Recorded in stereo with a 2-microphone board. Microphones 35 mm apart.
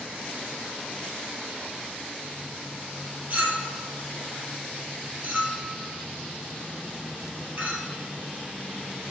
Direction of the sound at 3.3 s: 60° right (ahead or behind).